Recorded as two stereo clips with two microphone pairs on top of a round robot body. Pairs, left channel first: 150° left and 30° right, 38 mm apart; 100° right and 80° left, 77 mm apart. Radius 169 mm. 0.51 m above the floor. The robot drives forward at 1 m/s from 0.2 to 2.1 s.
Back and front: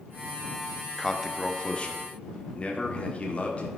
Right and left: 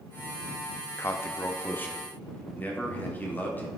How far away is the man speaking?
About 1.0 m.